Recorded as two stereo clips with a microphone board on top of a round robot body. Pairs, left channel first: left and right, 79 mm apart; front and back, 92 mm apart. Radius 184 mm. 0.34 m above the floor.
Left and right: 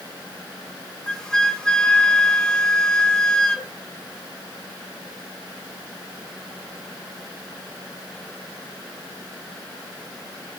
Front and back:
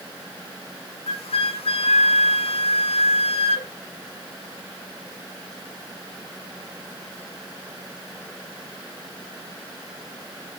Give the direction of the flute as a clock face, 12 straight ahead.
12 o'clock.